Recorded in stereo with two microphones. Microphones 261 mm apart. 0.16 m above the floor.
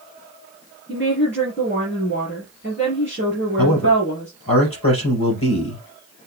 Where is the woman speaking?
45° left (ahead or behind), 3.5 m.